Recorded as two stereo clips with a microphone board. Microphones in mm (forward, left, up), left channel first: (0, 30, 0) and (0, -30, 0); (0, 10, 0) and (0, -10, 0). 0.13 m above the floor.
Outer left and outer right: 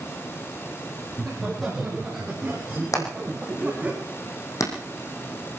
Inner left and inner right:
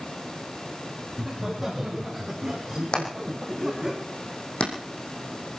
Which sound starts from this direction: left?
Hammering, at 2.9 s.